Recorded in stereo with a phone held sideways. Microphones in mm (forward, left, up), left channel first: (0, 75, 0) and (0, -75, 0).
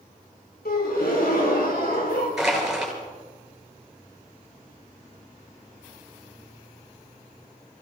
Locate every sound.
0.7 s a gasp: 85° left, 4 m
2.4 s crushing: centre (ahead or behind), 5 m